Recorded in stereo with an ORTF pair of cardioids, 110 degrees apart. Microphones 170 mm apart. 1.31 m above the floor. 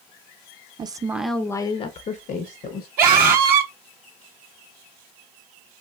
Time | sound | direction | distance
0.8 | a woman speaking | 30° right | 0.6 m
3.0 | a scream | 60° right | 0.7 m